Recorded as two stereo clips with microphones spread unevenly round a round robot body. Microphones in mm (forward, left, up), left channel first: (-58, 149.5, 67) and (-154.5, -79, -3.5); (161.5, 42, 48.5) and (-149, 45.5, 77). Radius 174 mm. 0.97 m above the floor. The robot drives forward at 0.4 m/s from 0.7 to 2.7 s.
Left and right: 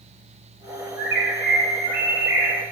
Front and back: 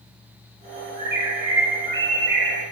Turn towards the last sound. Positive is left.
turn(degrees=-155)